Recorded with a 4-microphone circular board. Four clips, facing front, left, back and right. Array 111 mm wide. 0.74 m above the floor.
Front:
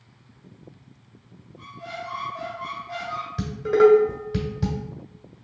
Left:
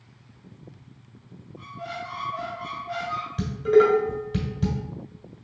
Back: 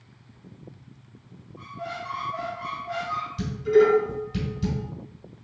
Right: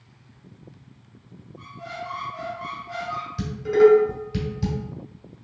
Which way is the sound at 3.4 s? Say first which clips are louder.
Right 2 dB, front 2 dB; 25° left.